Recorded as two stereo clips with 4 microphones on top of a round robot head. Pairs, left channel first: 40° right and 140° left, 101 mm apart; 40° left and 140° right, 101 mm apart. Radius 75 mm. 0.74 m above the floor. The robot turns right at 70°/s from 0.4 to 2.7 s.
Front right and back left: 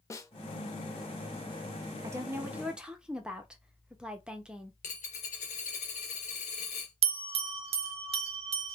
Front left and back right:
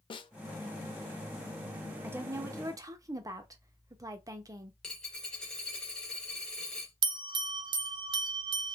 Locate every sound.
0.1 s a snare drum: 15° left, 0.5 m
2.0 s a woman speaking: 170° left, 0.7 m; by 4.7 s 145° right, 0.7 m
4.8 s a dropped coin: 40° right, 0.6 m
7.0 s a bell: 170° left, 0.6 m